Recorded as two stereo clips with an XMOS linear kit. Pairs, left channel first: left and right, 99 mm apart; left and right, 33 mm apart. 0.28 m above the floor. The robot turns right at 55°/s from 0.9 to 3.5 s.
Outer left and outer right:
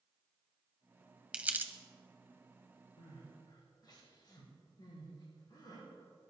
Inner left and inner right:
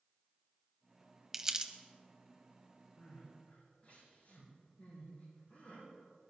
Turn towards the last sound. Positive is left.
turn(degrees=45)  # may be behind; listen again after turning